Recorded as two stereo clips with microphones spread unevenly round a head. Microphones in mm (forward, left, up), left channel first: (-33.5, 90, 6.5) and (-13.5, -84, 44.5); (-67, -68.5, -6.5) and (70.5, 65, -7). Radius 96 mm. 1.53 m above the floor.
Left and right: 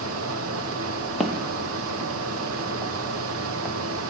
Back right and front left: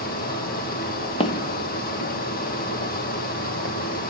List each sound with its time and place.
0.0 s a fan: 90° right, 1.7 m
1.2 s footsteps: 140° right, 1.6 m; by 4.1 s 165° right, 3.5 m